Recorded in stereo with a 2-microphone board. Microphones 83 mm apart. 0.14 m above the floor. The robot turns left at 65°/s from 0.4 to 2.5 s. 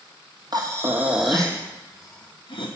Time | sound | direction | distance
0.5 | breathing | 50° right (ahead or behind) | 0.9 m